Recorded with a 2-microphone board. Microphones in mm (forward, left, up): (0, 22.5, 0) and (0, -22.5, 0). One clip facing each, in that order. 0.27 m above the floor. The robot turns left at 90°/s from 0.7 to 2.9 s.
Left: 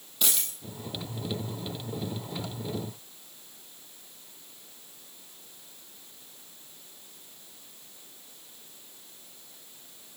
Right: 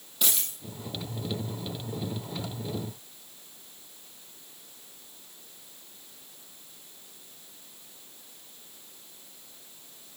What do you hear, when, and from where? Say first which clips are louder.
0.2 s a dropped coin: even; 5° right (ahead or behind), 7 m